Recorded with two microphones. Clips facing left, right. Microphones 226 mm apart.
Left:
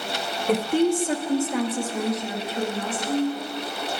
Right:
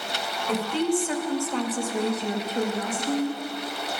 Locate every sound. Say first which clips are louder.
0.5 s a woman speaking: left 4 dB; 55° left (ahead or behind), 0.9 m; by 3.4 s 65° right (ahead or behind), 1.1 m